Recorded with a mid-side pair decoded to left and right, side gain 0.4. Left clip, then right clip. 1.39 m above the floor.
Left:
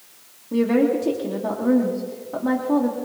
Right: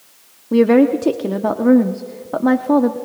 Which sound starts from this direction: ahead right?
A woman speaking, at 0.5 s.